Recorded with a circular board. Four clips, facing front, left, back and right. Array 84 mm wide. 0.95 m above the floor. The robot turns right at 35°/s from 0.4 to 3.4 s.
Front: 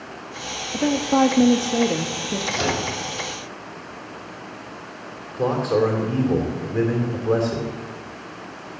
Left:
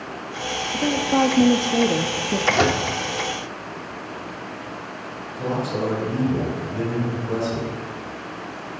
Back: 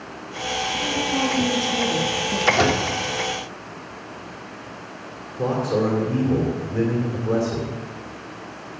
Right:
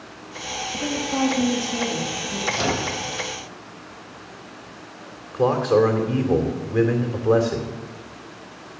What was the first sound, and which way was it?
A woman speaking, 15° left.